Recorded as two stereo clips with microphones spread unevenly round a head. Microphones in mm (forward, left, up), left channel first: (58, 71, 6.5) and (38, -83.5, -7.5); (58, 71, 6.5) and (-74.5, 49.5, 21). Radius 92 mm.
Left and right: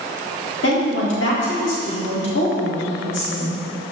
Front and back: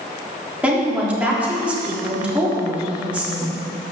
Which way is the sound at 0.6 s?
110° left.